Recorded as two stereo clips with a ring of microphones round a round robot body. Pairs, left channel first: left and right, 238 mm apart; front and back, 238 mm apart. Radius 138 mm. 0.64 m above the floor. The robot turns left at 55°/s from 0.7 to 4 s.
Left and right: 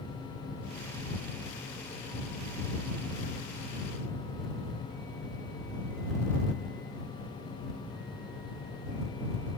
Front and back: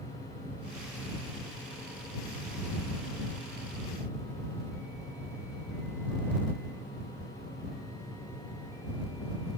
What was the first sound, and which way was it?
Only background noise.